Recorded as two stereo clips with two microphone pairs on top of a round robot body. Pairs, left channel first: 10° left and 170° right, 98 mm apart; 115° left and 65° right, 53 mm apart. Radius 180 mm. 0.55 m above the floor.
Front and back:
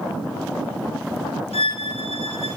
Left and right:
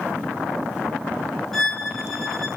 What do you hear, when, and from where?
1.5 s a violin: 30° left, 1.8 m